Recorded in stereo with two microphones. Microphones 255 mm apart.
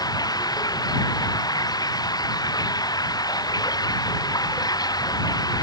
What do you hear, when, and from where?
0.0 s running water: 15° left (ahead or behind)